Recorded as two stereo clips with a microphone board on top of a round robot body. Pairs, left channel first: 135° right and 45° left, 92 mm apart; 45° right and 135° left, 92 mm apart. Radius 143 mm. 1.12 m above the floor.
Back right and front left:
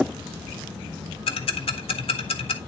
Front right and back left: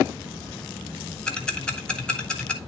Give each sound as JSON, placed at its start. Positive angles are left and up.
{"t": 1.3, "sound": "ticking", "azimuth_deg": -125, "distance_m": 1.3}